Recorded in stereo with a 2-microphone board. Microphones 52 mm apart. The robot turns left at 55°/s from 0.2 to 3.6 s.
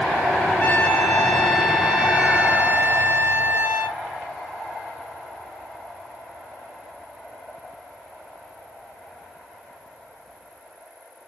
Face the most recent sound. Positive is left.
turn(degrees=-110)